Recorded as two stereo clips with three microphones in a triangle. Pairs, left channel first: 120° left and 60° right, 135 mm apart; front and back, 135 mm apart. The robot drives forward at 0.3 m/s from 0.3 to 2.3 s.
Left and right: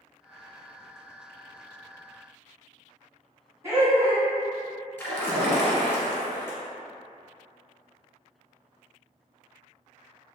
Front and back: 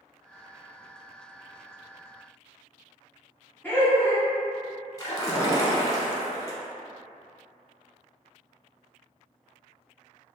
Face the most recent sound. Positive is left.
turn(degrees=55)